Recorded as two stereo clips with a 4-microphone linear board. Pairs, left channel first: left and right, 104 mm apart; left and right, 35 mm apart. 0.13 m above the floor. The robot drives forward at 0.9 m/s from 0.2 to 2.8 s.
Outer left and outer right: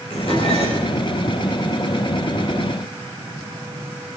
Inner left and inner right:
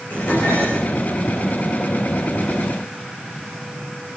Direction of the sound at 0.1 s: 55° left (ahead or behind).